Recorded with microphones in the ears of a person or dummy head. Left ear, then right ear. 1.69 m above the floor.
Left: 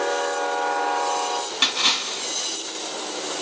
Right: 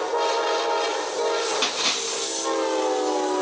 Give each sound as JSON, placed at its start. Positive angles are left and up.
{"t": 1.6, "sound": "a splash", "side_deg": 10, "distance_m": 1.4}